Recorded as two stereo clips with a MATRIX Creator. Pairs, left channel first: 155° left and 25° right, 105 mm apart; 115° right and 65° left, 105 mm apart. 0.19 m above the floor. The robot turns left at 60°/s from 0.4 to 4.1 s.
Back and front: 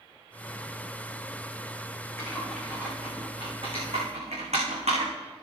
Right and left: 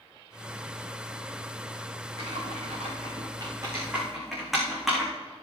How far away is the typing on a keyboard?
About 6.5 m.